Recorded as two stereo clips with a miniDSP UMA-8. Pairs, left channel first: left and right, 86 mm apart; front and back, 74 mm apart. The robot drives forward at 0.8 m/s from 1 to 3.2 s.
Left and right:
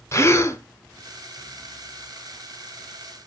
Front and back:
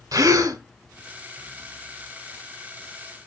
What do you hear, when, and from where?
0.1 s a gasp: 145° left, 0.6 m